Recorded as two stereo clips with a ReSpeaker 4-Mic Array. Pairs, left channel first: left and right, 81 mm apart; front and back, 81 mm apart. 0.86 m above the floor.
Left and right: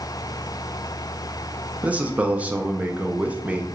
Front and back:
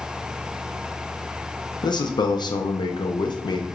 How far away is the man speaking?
About 0.6 m.